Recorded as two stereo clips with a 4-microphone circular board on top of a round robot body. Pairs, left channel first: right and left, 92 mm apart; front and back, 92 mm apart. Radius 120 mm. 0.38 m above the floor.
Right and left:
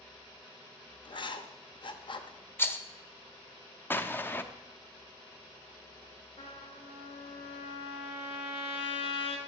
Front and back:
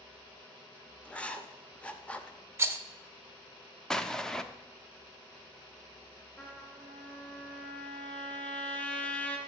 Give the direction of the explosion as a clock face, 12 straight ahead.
2 o'clock.